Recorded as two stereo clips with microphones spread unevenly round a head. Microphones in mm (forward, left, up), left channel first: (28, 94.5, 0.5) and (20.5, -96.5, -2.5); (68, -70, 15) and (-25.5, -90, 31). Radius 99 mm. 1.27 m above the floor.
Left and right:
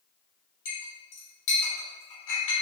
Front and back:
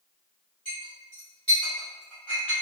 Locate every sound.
0.7 s a clink: 100° left, 1.8 m